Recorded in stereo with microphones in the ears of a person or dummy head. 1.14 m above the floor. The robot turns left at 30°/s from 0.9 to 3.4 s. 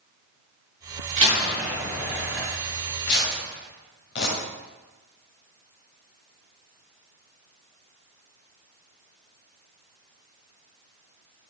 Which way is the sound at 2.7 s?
60° left (ahead or behind).